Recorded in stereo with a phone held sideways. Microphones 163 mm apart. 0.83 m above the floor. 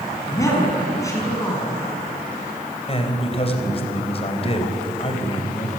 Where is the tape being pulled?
I don't hear tape being pulled.